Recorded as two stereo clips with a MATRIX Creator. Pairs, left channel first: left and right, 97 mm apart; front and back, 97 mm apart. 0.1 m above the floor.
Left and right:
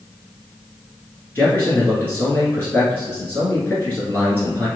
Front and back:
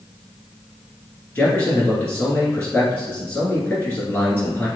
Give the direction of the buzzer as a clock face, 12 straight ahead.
I don't hear a buzzer.